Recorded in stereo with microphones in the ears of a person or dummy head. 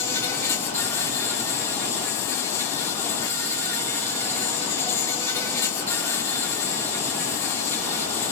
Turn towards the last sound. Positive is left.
turn(degrees=20)  # may be behind; listen again after turning